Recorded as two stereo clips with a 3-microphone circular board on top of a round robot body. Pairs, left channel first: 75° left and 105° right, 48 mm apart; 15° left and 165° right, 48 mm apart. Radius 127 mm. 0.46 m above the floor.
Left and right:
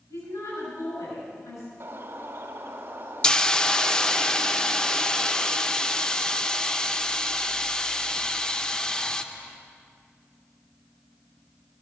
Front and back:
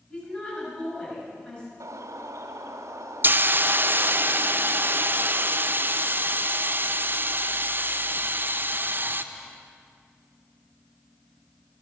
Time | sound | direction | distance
0.1 | a woman speaking | 80° left | 6.5 m
1.8 | a bird | 150° right | 1.1 m
3.2 | a hiss | 150° left | 0.6 m